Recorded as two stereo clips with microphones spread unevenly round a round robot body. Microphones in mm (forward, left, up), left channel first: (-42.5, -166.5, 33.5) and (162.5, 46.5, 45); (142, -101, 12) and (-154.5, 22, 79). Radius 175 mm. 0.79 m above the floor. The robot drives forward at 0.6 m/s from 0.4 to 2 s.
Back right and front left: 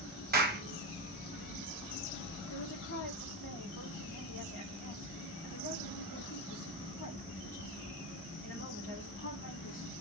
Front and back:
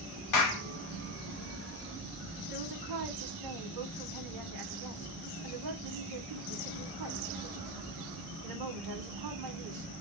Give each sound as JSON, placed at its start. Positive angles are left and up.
{"t": 0.3, "sound": "a clap", "azimuth_deg": -15, "distance_m": 1.1}
{"t": 2.5, "sound": "a woman speaking", "azimuth_deg": 170, "distance_m": 1.9}